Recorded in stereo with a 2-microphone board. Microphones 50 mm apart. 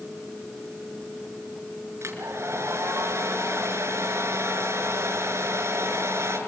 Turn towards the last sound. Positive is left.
turn(degrees=-65)  # may be behind; listen again after turning